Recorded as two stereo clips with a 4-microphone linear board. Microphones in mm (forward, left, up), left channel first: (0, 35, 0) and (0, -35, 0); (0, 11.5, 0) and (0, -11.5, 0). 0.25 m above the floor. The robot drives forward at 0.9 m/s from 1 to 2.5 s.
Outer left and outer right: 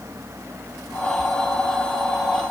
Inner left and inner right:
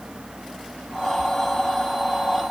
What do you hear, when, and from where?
Only background noise.